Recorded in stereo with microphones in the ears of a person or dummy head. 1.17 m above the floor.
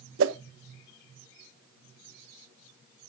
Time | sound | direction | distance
0.2 | a whoosh | 70° right (ahead or behind) | 0.8 m